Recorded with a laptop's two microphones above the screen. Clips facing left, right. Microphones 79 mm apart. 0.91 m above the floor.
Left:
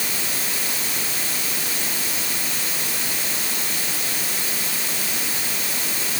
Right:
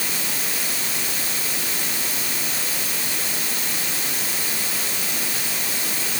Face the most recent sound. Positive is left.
No sound to turn to.